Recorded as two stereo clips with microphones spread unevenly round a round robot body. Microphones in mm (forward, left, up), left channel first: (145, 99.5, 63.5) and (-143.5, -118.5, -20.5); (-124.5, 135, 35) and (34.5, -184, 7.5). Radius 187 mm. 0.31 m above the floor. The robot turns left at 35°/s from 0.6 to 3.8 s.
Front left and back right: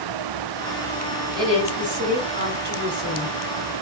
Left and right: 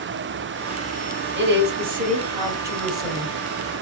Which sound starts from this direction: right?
A woman speaking, at 1.4 s.